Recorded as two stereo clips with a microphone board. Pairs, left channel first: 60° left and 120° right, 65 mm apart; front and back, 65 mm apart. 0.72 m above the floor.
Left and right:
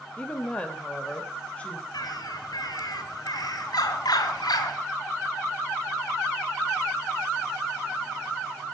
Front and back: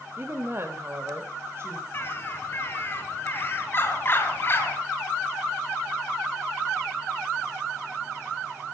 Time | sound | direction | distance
0.2 | a woman speaking | 130° left | 2 m
1.9 | a bird | 55° left | 3 m